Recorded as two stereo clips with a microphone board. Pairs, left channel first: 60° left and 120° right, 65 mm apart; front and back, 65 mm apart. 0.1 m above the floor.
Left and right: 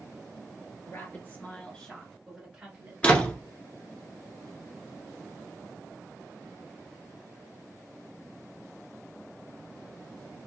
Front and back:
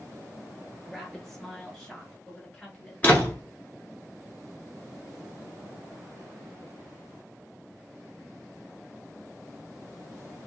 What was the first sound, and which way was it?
A woman speaking, 85° left.